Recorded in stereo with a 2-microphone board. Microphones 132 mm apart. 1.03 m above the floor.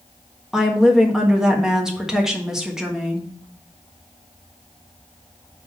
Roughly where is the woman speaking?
Centre.